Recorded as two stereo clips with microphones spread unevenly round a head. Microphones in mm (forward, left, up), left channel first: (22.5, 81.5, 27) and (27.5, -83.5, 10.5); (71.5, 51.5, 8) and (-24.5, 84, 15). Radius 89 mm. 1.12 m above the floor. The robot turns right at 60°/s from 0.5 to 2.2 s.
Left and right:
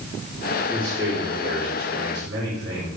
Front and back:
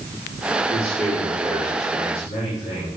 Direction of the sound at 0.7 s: Straight behind.